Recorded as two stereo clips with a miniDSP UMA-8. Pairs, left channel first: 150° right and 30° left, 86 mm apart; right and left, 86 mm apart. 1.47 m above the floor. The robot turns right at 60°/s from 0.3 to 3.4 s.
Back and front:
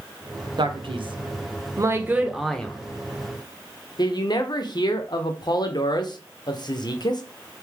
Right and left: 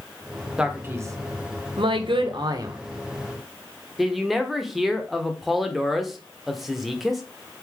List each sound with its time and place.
0.6 s a man speaking: 10° left, 0.6 m; by 7.2 s straight behind, 0.6 m